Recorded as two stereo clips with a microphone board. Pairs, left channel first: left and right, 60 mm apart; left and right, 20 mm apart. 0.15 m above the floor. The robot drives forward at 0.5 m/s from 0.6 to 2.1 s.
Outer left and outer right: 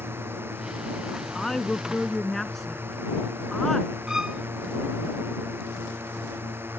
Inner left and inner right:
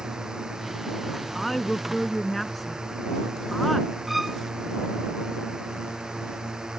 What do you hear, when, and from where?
0.0 s a drone: 40° right (ahead or behind); by 6.8 s 35° right (ahead or behind)
1.4 s a woman speaking: 5° left (ahead or behind)
4.1 s a violin: 10° right (ahead or behind)